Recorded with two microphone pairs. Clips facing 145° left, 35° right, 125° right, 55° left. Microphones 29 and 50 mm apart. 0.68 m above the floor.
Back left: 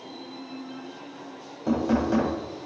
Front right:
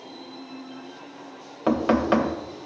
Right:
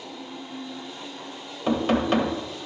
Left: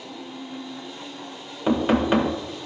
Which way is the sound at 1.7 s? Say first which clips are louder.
Front right 3 dB, left 2 dB; 15° right.